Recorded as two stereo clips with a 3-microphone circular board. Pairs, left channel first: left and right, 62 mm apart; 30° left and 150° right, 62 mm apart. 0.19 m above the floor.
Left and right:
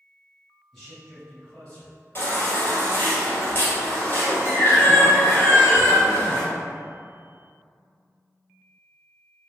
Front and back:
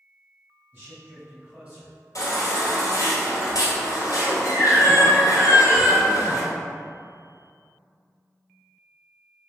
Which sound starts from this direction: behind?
A man speaking, at 0.7 s.